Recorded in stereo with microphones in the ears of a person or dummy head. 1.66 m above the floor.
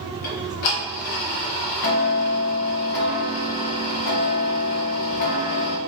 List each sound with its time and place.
0.2 s ticking: 40° left (ahead or behind), 0.6 m